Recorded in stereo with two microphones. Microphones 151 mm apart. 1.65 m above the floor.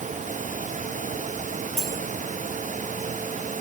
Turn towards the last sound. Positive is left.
turn(degrees=40)  # may be behind; listen again after turning